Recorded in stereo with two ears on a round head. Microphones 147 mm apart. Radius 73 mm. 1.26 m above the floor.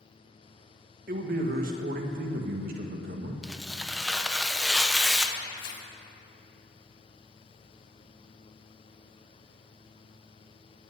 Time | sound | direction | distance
1.1 | a man speaking | 55° right (ahead or behind) | 1.6 m
3.4 | tearing paper | centre (ahead or behind) | 0.7 m
5.6 | tearing paper | 75° left (ahead or behind) | 1.7 m